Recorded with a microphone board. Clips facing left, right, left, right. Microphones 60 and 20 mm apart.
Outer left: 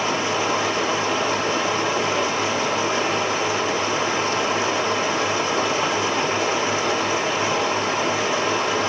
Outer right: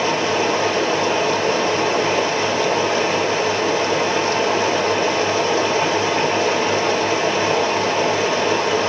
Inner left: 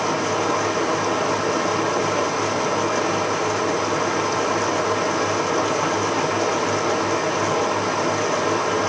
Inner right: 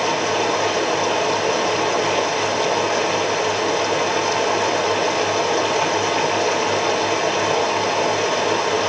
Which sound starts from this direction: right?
Running water, at 0.0 s.